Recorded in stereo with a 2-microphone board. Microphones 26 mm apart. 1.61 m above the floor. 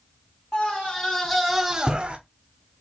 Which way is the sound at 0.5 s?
40° left (ahead or behind).